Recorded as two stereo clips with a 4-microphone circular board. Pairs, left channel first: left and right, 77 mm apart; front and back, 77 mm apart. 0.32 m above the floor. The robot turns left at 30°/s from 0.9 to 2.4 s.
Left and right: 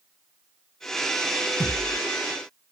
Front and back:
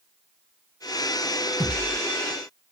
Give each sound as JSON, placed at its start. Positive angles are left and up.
{"t": 1.6, "sound": "a thud", "azimuth_deg": -145, "distance_m": 2.0}